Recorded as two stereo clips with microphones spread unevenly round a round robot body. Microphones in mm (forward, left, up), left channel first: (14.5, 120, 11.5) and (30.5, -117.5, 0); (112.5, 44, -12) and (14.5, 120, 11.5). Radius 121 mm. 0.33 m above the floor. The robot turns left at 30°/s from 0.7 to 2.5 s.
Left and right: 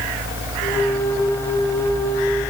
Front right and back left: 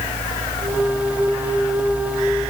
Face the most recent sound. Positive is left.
No sound to turn to.